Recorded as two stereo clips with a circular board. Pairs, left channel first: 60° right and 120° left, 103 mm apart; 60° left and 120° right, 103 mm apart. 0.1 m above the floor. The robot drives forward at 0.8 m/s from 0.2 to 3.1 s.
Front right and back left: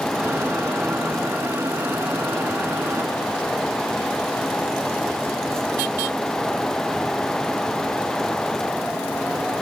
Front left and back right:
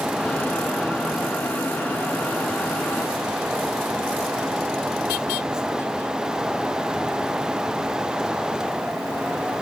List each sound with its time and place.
Only background noise.